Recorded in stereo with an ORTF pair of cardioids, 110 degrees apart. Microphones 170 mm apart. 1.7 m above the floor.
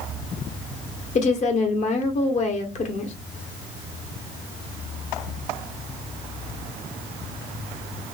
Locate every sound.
1.1 s a woman speaking: 45° left, 1.1 m